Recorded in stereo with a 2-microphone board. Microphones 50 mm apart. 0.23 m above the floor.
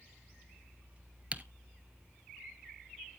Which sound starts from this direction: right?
Typing on a keyboard, at 1.3 s.